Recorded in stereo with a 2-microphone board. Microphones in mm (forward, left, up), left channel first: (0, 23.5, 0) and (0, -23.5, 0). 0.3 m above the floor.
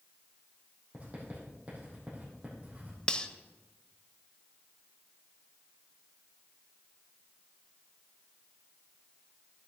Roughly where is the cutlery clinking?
Left.